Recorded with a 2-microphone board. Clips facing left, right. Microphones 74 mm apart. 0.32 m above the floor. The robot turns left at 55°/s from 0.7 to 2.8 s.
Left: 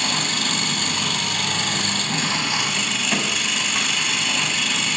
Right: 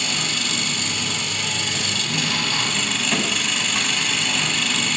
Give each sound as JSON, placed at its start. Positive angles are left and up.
{"t": 0.0, "sound": "an engine running", "azimuth_deg": 120, "distance_m": 1.1}